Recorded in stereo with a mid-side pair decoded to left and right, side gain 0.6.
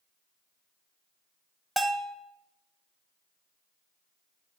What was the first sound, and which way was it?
A bell, 15° right.